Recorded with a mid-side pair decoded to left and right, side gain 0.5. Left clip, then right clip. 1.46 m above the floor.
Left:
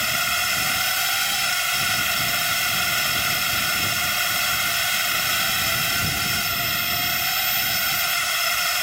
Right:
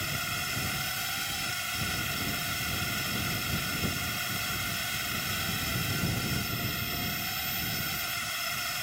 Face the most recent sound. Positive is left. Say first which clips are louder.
# left 11 dB
turn(degrees=60)